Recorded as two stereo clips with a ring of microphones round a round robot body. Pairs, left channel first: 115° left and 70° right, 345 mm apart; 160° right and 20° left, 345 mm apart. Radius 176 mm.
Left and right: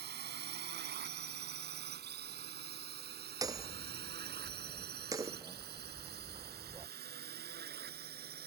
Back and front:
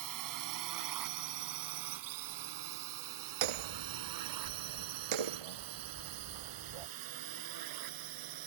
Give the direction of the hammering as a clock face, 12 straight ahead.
12 o'clock.